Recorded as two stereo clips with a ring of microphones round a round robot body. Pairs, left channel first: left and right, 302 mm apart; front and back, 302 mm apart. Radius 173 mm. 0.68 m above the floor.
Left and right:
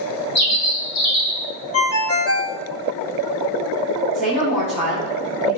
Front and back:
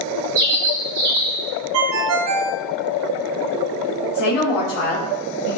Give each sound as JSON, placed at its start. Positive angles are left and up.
{"t": 0.3, "sound": "a bird", "azimuth_deg": 120, "distance_m": 4.0}
{"t": 1.7, "sound": "a ringtone", "azimuth_deg": 135, "distance_m": 0.8}
{"t": 4.1, "sound": "a woman speaking", "azimuth_deg": 25, "distance_m": 1.9}